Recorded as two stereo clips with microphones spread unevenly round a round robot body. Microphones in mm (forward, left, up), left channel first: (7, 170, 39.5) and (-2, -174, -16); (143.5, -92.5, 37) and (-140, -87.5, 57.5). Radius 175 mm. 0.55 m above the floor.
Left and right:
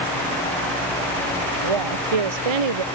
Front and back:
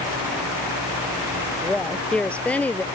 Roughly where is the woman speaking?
Right.